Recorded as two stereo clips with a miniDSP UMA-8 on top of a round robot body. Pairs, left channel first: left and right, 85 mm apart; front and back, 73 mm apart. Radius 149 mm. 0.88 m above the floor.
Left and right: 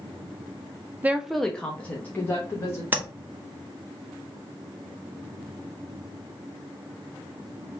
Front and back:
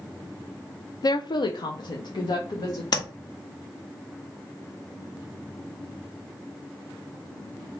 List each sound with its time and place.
1.0 s a woman speaking: 25° right, 0.5 m; by 2.8 s 30° left, 1.5 m
2.9 s tapping: 25° right, 1.5 m